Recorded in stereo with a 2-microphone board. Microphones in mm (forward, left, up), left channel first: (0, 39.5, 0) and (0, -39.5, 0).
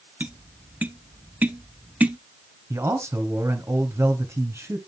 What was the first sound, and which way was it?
Tapping, 20° right (ahead or behind).